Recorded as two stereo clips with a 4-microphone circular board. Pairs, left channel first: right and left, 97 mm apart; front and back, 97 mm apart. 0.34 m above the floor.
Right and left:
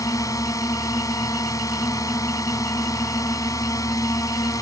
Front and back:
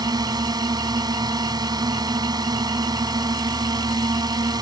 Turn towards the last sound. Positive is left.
turn(degrees=-140)